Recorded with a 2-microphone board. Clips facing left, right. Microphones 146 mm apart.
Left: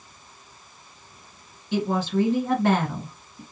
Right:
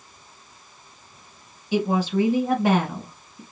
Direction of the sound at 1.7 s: 10° right (ahead or behind).